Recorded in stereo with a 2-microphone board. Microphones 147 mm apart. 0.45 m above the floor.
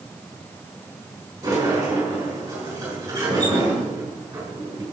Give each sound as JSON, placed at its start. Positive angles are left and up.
{"t": 1.4, "sound": "a sliding door", "side_deg": -20, "distance_m": 6.5}